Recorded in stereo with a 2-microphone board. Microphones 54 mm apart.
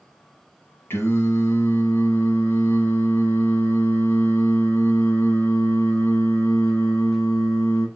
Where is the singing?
45° left (ahead or behind), 1.6 m.